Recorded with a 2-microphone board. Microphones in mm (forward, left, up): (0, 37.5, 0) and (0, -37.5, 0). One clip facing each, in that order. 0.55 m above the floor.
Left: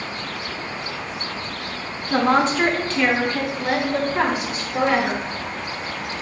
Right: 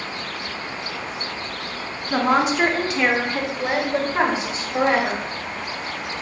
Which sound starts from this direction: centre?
A woman speaking, at 2.1 s.